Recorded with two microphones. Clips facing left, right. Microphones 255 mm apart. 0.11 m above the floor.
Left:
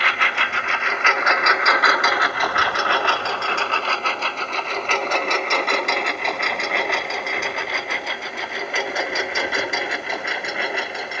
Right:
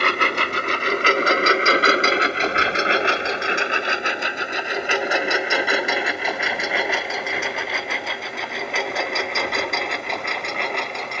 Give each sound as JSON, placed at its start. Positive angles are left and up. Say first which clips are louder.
{"t": 0.0, "sound": "a lawn mower", "louder": "right 6 dB", "side_deg": -50}